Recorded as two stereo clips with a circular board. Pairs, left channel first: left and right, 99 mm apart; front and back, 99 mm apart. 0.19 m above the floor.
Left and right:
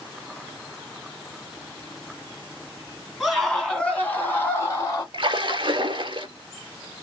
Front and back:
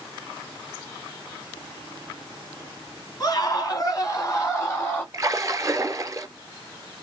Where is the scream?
5° right, 1.8 m; by 5.0 s 55° left, 1.9 m.